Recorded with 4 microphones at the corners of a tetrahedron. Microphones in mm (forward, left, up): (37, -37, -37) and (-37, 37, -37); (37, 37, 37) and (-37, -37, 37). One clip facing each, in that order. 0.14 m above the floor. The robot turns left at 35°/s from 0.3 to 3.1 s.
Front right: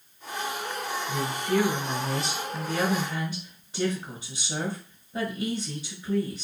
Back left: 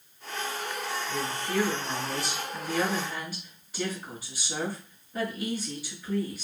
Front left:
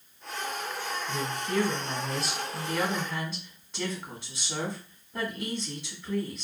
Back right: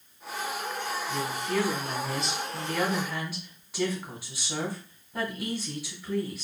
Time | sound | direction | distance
1.1 | a woman speaking | 5° left | 1.3 m